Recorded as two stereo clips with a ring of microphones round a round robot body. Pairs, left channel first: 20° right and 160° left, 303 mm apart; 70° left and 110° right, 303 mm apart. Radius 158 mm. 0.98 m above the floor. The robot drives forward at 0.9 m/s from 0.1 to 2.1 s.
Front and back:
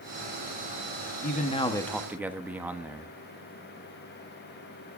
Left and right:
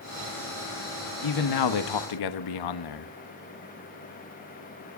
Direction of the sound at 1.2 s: 40° left.